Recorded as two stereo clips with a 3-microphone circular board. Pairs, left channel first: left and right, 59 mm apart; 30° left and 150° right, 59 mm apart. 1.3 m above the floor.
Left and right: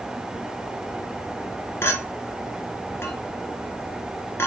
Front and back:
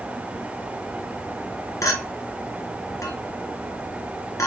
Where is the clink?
45° left, 0.6 m.